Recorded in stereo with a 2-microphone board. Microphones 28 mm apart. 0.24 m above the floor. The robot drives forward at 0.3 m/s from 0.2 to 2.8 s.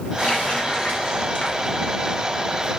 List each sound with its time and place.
0.2 s a running tap: 55° left (ahead or behind), 2.5 m; by 2.2 s 65° left (ahead or behind), 2 m